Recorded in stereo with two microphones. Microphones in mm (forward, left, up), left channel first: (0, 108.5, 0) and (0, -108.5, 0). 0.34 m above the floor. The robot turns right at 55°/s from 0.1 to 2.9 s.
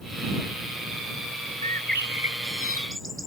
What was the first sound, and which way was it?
A bird, 145° right.